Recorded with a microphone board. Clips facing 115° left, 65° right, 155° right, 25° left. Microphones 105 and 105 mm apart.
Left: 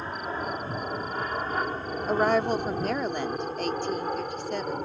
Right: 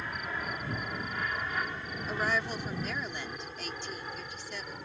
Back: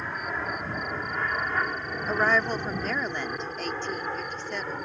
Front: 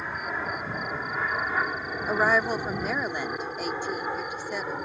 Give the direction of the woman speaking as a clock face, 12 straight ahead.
9 o'clock.